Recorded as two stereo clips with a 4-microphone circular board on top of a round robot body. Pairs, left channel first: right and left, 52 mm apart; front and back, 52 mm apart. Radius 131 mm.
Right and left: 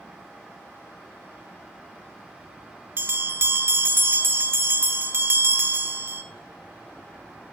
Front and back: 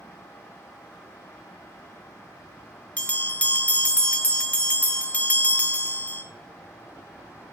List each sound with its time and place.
3.0 s a bell: 60° left, 1.2 m